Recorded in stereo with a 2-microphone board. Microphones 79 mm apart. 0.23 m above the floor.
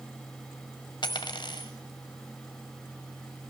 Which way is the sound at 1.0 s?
70° left (ahead or behind).